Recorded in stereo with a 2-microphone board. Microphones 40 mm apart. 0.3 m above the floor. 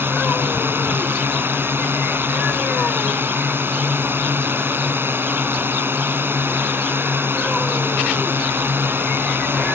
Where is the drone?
60° right (ahead or behind).